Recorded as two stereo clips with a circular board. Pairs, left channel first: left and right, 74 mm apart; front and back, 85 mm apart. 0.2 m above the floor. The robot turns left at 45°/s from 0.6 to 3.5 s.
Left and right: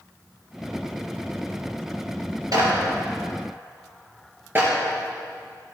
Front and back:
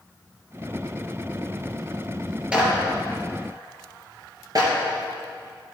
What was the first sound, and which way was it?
A clap, 105° right.